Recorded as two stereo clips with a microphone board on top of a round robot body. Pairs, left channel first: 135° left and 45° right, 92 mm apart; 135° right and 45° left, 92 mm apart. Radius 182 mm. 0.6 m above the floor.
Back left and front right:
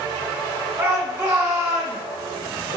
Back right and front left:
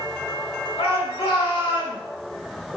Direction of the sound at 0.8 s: 105° right.